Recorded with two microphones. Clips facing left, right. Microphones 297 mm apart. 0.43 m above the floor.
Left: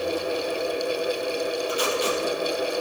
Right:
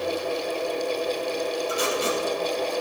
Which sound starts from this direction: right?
Tape being pulled, at 1.7 s.